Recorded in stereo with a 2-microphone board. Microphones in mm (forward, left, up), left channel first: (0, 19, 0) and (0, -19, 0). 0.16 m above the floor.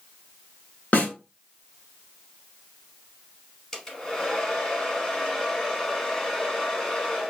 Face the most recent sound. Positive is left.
turn(degrees=15)  # may be behind; listen again after turning